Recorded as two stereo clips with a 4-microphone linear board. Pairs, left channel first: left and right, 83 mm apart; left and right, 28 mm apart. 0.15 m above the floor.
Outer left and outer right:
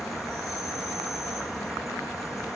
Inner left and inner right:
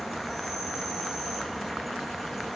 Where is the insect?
Centre (ahead or behind), 1.2 m.